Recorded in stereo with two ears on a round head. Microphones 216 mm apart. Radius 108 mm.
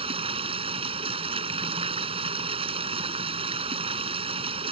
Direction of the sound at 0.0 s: 25° right (ahead or behind).